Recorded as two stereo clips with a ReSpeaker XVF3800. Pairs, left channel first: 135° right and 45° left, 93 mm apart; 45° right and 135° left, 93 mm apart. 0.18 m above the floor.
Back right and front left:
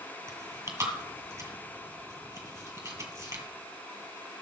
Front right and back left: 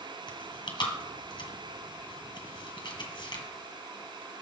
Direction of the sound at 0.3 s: 10° right.